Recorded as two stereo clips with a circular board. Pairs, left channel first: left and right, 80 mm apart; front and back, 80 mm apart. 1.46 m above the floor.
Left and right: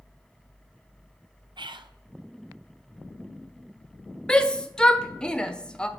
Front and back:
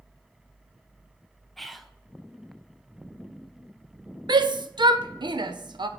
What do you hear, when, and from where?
1.6 s whispering: 90° right, 0.6 m
4.3 s a shout: 170° left, 0.6 m